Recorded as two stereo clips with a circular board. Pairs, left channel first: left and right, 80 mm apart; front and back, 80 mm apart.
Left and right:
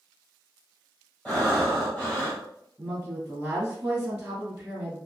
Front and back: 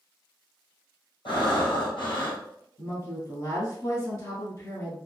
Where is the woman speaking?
20° right, 1.3 m.